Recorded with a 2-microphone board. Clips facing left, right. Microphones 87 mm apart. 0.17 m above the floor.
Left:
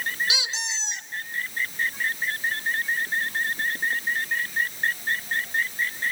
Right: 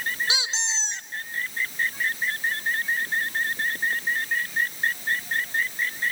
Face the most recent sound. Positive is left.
turn(degrees=-30)  # may be behind; listen again after turning